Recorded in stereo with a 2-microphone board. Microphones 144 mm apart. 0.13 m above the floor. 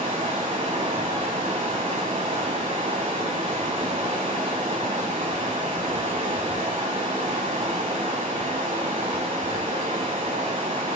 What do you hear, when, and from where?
0.0 s running water: 40° right (ahead or behind), 0.8 m